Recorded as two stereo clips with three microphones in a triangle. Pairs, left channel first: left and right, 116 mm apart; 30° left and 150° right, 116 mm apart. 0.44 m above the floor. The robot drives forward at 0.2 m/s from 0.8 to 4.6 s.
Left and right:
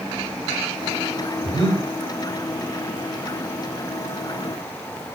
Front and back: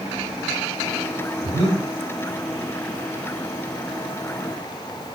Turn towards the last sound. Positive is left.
turn(degrees=80)